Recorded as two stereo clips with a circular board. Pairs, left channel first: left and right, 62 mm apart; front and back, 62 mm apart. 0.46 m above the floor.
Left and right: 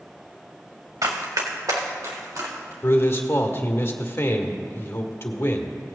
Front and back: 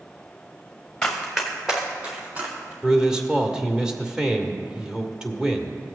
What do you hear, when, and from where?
1.0 s running footsteps: 80° right, 2 m; by 2.7 s 115° right, 4 m
2.8 s a man speaking: 105° left, 1.2 m